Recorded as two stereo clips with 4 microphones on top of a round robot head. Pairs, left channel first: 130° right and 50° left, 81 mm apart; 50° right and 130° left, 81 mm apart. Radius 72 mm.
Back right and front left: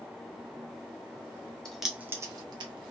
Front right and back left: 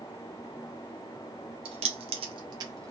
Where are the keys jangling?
145° left, 0.6 m; by 2.9 s 75° left, 0.8 m.